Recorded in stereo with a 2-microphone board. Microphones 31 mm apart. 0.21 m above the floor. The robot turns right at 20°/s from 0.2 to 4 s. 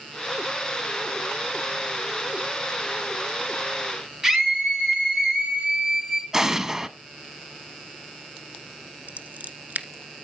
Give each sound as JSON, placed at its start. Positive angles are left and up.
{"t": 4.2, "sound": "a scream", "side_deg": -10, "distance_m": 2.5}
{"t": 6.3, "sound": "an explosion", "side_deg": -15, "distance_m": 1.0}
{"t": 9.1, "sound": "scissors", "side_deg": -65, "distance_m": 1.2}